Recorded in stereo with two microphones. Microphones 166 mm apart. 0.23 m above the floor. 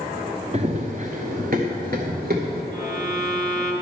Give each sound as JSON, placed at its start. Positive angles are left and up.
{"t": 0.5, "sound": "running footsteps", "side_deg": -40, "distance_m": 1.3}
{"t": 2.7, "sound": "a violin", "side_deg": -25, "distance_m": 1.9}